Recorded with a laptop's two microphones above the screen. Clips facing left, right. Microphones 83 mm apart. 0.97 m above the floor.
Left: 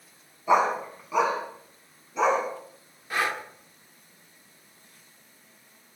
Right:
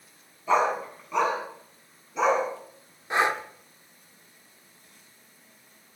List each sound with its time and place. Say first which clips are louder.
0.5 s a dog barking: left 1 dB; 10° left (ahead or behind), 3 m; by 2.4 s centre (ahead or behind), 4 m
3.1 s breathing: right 4 dB; 25° right (ahead or behind), 0.9 m